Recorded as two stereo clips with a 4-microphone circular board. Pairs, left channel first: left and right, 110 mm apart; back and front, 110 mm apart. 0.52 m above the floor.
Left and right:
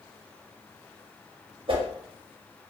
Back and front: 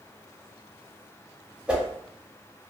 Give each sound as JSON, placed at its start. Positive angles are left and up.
{"t": 1.7, "sound": "a whoosh", "azimuth_deg": -80, "distance_m": 0.6}